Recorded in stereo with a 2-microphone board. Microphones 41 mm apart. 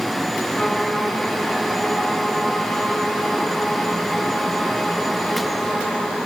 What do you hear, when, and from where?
0.5 s a violin: 15° left (ahead or behind), 7 m